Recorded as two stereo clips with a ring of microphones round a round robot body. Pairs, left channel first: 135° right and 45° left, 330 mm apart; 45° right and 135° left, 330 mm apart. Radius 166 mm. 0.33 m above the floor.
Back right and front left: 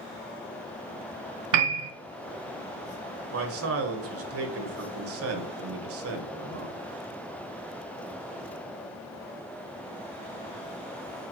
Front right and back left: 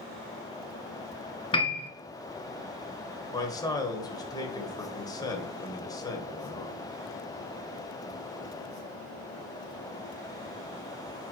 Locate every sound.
1.5 s a piano: 30° left, 1.1 m
3.3 s a man speaking: 30° left, 1.6 m